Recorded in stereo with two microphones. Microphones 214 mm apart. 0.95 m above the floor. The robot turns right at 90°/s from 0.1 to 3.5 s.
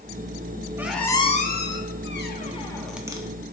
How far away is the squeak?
About 0.5 m.